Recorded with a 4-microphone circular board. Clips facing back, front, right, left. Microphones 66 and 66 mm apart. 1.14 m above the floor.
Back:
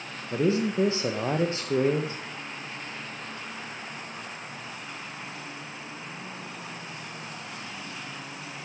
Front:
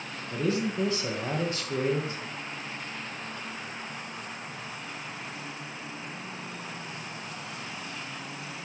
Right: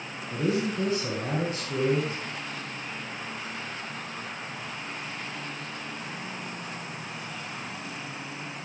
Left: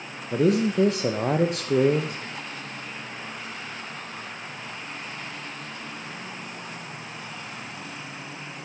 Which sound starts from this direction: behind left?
A man speaking, at 0.3 s.